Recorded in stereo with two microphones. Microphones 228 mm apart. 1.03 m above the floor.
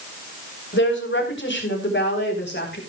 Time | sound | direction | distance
0.7 | a woman speaking | 55° left (ahead or behind) | 3.5 m